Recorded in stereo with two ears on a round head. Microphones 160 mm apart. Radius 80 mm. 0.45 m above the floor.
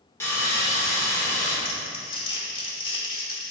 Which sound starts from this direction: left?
Crumpling, at 1.6 s.